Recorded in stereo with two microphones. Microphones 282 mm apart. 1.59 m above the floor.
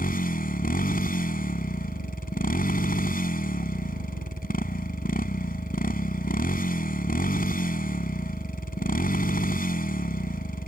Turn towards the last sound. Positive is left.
turn(degrees=30)  # may be behind; listen again after turning